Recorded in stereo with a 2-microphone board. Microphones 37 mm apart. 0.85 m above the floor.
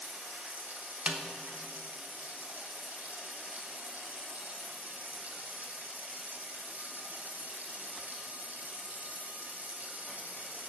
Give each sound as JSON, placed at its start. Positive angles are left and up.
{"t": 0.0, "sound": "running water", "side_deg": -50, "distance_m": 2.0}
{"t": 1.1, "sound": "a snare drum", "side_deg": -25, "distance_m": 1.0}